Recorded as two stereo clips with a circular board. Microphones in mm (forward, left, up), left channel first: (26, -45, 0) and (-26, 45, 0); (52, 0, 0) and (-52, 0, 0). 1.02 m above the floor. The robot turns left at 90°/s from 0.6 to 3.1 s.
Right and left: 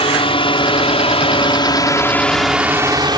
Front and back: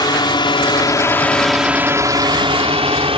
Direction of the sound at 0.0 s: 45° right.